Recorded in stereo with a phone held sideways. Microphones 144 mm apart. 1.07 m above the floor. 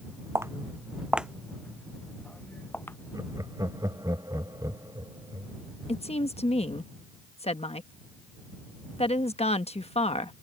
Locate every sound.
0.3 s footsteps: 20° right (ahead or behind); by 3.0 s 15° left (ahead or behind)
3.1 s laughter: 25° right (ahead or behind)
5.9 s a woman speaking: 45° left (ahead or behind)